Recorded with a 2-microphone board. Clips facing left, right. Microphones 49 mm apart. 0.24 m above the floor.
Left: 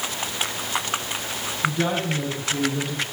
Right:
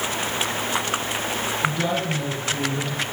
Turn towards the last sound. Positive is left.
turn(degrees=15)  # may be behind; listen again after turning